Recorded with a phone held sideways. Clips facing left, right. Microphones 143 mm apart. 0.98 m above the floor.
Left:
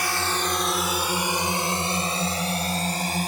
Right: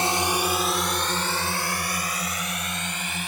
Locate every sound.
0.0 s a drone: 25° right (ahead or behind); by 3.3 s 40° left (ahead or behind)